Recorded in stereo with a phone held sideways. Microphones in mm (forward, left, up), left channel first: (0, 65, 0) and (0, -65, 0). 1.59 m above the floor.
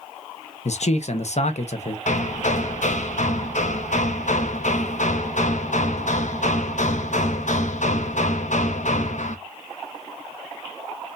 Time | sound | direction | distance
0.7 | a man speaking | 60° left (ahead or behind) | 0.9 m
2.1 | hammering | 70° left (ahead or behind) | 0.9 m